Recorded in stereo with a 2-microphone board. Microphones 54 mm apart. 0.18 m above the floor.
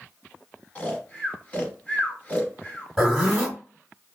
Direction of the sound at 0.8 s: 25° left (ahead or behind).